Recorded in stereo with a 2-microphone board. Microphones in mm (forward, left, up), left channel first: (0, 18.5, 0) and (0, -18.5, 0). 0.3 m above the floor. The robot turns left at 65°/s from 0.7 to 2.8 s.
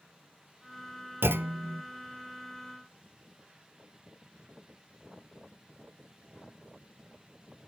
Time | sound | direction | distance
1.2 | a clunk | 90° right | 0.6 m